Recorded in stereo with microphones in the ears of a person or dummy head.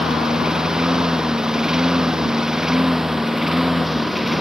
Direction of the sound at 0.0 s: 5° left (ahead or behind).